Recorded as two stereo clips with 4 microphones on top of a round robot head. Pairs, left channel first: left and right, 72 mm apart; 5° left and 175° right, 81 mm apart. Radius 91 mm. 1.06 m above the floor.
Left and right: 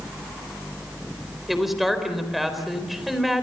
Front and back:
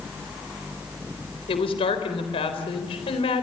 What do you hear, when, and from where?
1.5 s a woman speaking: straight ahead, 4 m